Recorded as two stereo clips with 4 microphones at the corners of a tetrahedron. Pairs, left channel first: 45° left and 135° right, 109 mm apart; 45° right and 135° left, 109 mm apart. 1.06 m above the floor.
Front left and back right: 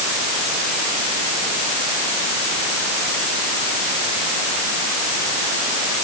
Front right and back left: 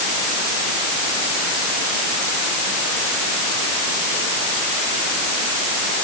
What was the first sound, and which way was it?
Only background noise.